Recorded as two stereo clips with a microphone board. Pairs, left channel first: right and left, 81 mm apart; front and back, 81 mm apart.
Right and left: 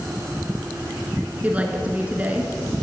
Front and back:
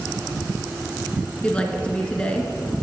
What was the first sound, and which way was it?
A woman speaking, 55° left.